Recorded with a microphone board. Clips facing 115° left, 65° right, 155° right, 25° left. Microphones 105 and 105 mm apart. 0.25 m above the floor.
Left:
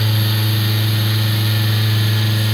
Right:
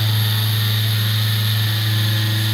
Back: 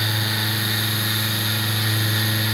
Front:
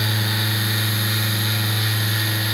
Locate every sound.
Only background noise.